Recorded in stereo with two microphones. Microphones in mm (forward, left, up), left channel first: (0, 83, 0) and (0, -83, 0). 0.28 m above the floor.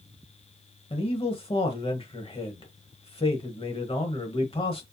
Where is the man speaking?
35° left (ahead or behind), 1.1 m.